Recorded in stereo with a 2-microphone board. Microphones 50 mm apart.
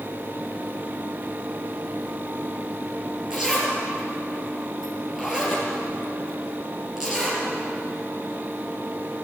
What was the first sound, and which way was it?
A zipper, 10° right (ahead or behind).